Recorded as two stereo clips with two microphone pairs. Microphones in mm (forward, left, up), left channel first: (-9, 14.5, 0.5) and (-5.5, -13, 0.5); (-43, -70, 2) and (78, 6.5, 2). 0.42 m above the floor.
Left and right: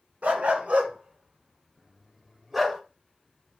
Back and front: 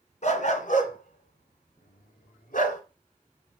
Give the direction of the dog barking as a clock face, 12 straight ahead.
4 o'clock.